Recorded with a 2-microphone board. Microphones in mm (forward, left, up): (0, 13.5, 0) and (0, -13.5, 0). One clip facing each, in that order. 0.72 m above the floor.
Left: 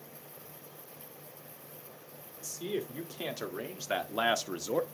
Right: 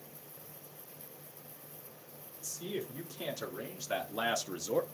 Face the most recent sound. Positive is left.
turn(degrees=15)  # may be behind; listen again after turning